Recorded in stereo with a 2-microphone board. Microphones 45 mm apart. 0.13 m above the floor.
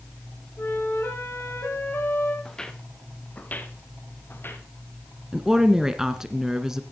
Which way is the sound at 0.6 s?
60° left (ahead or behind).